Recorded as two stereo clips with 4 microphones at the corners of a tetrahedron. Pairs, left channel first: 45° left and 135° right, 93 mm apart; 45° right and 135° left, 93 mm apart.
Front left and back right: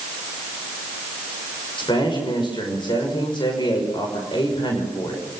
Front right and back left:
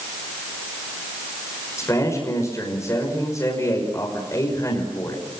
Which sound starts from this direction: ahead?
A man speaking, at 1.8 s.